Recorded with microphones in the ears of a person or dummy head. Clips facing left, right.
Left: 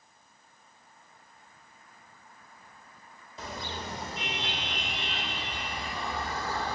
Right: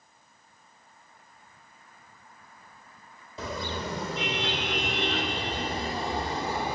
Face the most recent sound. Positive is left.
turn(degrees=-15)  # may be behind; listen again after turning